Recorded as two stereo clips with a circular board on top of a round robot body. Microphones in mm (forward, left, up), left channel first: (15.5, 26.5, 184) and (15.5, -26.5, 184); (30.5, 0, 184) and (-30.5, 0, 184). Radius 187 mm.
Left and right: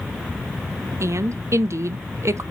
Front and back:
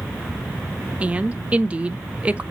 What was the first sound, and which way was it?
A woman speaking, 110° right.